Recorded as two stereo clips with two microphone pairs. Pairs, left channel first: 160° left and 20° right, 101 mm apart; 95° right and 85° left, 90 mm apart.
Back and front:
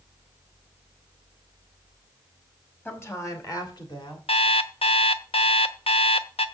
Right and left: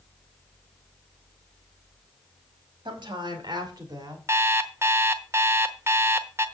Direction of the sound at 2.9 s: 95° left.